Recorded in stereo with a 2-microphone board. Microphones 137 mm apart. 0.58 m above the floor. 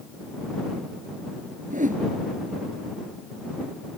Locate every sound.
1.7 s a whoosh: 70° right (ahead or behind)